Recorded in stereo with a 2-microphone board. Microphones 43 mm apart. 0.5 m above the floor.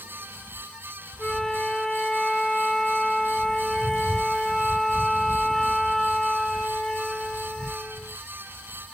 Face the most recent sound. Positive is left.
turn(degrees=10)  # may be behind; listen again after turning